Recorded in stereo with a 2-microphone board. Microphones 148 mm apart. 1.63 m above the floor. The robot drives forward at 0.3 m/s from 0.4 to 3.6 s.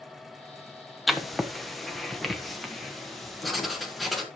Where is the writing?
Centre (ahead or behind), 0.9 m.